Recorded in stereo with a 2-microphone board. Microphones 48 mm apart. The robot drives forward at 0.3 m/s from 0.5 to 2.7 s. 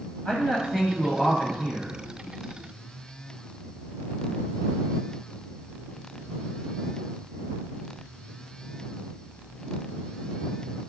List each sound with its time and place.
0.2 s a man speaking: 20° left (ahead or behind), 1.0 m; by 2.0 s 15° left (ahead or behind), 1.1 m